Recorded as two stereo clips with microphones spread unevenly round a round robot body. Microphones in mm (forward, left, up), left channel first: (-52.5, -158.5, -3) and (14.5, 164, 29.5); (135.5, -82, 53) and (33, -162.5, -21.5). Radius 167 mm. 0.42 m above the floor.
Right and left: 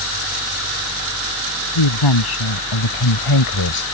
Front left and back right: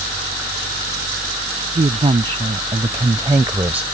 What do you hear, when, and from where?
1.8 s a woman speaking: 100° right; by 3.8 s 80° right